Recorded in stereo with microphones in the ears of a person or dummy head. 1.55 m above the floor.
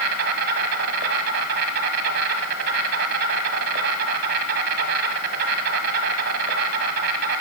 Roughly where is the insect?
Right.